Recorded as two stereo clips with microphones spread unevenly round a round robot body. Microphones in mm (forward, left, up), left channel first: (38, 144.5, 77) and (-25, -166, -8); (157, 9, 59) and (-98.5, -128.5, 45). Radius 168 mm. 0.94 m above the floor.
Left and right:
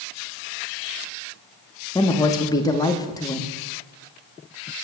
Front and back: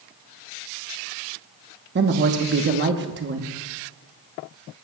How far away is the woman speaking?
About 1.1 m.